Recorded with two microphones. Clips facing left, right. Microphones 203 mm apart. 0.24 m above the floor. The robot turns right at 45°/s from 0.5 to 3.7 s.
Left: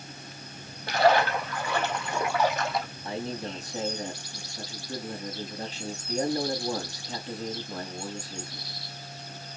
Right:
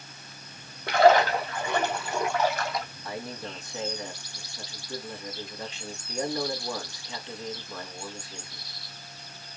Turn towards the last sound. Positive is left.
turn(degrees=40)  # may be behind; listen again after turning